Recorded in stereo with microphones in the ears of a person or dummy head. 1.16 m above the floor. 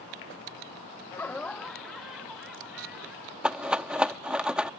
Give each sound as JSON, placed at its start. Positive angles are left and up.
{"t": 1.1, "sound": "laughter", "side_deg": 15}
{"t": 3.4, "sound": "a rattle", "side_deg": -5}